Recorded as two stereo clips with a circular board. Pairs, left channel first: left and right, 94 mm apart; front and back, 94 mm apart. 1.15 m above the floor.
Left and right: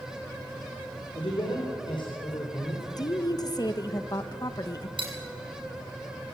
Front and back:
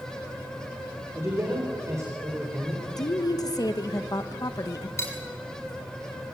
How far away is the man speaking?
About 4 m.